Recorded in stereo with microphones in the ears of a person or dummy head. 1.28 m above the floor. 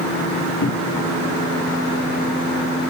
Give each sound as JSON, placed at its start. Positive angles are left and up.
{"t": 0.6, "sound": "a cupboard door", "side_deg": 65, "distance_m": 1.5}